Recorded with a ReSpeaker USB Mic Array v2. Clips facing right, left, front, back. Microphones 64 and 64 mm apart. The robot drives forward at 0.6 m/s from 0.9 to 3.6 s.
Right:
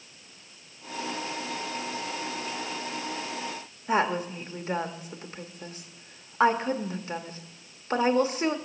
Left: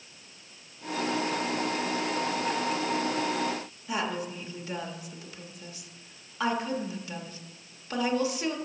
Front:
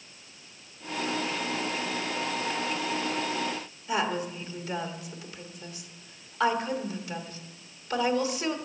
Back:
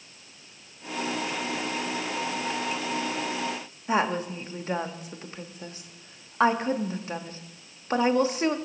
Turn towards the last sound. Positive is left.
turn(degrees=-130)